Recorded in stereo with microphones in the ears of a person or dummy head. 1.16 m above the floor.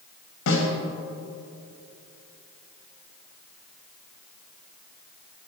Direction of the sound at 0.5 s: 70° left (ahead or behind).